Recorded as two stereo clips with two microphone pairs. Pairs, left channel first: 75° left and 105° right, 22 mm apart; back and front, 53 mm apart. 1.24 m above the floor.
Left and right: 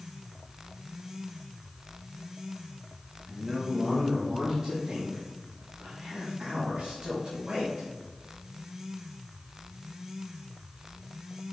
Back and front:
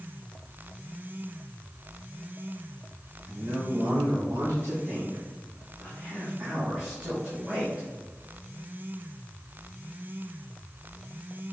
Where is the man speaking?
5° right, 1.4 m; by 7.9 s 70° right, 4 m.